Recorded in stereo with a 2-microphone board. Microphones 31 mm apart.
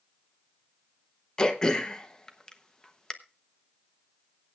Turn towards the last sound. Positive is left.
turn(degrees=20)  # may be behind; listen again after turning